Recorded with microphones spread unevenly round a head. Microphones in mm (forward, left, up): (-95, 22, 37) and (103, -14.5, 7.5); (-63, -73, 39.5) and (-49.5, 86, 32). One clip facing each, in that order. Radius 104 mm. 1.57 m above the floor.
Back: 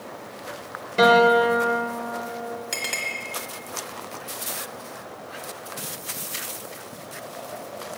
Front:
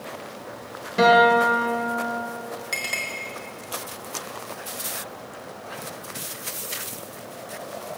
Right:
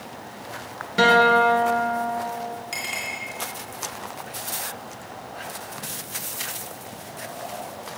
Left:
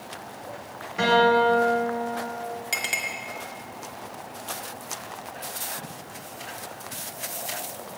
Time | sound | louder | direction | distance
1.0 | a guitar | back 1 dB, right 2 dB | 95° right | 1.7 m
2.7 | a clink | back 1 dB, even | 90° left | 1.6 m